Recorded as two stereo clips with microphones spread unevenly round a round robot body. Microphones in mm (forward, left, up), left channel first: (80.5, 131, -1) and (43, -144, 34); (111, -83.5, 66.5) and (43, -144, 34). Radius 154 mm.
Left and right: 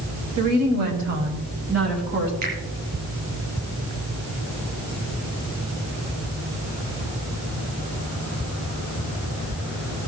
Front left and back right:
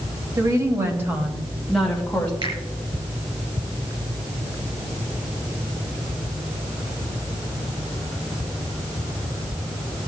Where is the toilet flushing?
No toilet flushing in this recording.